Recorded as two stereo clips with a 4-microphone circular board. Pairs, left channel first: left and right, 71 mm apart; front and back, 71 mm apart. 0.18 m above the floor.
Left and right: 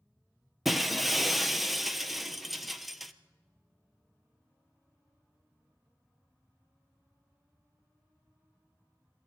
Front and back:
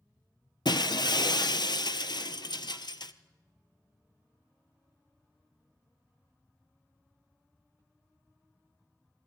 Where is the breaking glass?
Straight ahead, 0.9 m.